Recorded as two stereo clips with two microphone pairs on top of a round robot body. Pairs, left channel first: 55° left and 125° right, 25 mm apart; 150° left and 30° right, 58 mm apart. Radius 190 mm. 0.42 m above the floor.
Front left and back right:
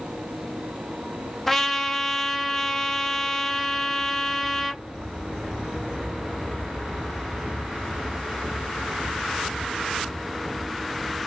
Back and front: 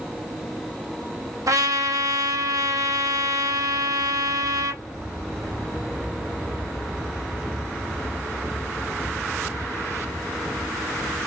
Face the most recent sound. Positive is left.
turn(degrees=-20)